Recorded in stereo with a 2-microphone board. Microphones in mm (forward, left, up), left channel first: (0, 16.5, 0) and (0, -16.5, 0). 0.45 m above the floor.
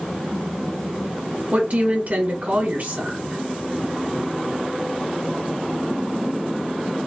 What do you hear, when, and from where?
1.5 s a woman speaking: 55° right (ahead or behind), 1.2 m